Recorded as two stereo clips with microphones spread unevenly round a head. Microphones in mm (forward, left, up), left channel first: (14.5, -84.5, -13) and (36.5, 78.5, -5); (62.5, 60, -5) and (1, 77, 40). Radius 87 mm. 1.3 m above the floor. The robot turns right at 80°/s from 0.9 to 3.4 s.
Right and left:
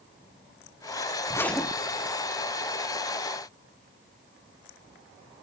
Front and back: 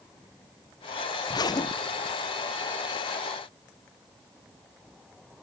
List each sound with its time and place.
1.3 s a zipper: 30° right, 0.5 m; by 2.2 s 40° left, 0.5 m